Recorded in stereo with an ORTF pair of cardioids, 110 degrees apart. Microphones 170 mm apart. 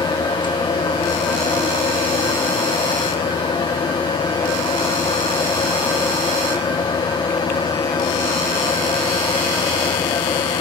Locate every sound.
0.0 s a fan: 25° left, 1.3 m